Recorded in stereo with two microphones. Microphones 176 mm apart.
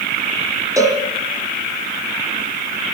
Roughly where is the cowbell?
Centre.